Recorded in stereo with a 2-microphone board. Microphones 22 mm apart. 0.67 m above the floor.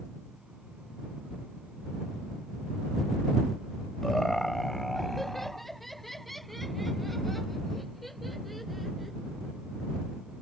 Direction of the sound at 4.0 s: 15° left (ahead or behind).